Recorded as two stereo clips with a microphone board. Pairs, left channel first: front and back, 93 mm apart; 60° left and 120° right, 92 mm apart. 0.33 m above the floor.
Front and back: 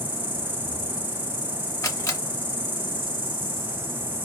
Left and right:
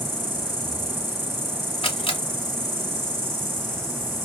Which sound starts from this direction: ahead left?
A camera shutter, at 1.8 s.